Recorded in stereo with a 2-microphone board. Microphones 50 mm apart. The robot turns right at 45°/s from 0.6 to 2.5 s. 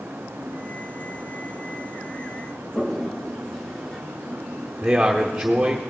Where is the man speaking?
15° right (ahead or behind), 1.0 m.